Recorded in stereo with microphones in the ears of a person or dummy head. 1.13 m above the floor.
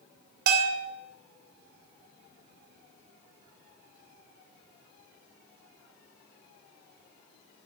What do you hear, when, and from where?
0.5 s a bell: 60° right (ahead or behind), 2 m